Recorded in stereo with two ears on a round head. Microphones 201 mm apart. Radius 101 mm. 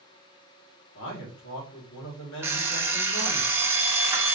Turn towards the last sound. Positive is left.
turn(degrees=-10)  # may be behind; listen again after turning